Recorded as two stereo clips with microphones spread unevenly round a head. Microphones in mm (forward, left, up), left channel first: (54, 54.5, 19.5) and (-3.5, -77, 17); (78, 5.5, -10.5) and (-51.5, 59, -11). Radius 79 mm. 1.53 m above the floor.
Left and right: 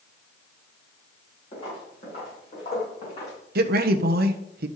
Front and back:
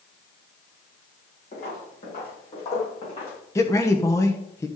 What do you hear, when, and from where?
1.5 s footsteps: 15° left, 5 m; by 3.4 s 25° left, 5.5 m
3.5 s a man speaking: 95° right, 1.1 m